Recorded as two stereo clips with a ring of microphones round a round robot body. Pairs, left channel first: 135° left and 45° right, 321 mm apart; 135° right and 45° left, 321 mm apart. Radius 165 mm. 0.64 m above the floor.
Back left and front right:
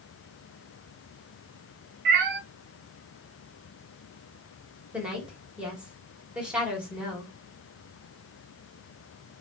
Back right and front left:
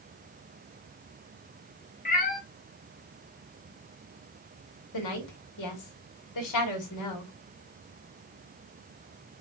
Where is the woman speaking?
130° right, 1.9 m.